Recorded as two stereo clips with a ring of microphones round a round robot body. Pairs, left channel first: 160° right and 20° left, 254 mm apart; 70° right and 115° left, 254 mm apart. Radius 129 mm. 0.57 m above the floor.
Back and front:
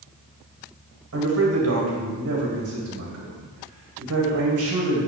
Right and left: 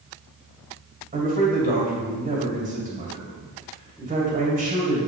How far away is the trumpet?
No trumpet in this recording.